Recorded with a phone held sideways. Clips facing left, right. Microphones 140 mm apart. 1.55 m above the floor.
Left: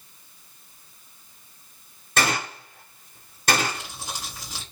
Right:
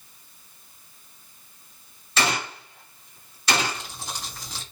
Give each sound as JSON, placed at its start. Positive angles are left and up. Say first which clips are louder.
{"t": 2.2, "sound": "a gunshot", "louder": "left 1 dB", "side_deg": 55, "distance_m": 2.5}
{"t": 3.7, "sound": "crumpling", "louder": "even", "side_deg": 5, "distance_m": 3.0}